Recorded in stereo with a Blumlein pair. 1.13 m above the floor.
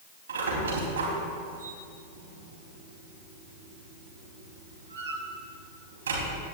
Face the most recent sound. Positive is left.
turn(degrees=-65)